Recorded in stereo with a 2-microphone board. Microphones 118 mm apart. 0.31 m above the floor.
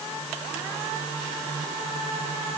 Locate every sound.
Only background noise.